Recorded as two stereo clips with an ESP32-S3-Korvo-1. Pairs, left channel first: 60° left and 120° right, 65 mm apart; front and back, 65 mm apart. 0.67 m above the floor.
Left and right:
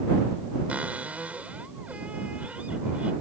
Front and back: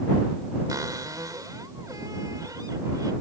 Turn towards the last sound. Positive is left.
turn(degrees=175)